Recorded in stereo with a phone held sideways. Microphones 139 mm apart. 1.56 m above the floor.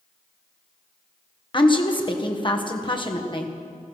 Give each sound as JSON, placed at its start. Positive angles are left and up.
{"t": 1.5, "sound": "a woman speaking", "side_deg": 35, "distance_m": 1.5}